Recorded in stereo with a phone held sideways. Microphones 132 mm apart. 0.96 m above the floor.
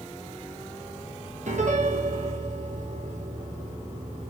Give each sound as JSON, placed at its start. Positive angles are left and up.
{"t": 1.5, "sound": "a piano", "side_deg": -70, "distance_m": 0.7}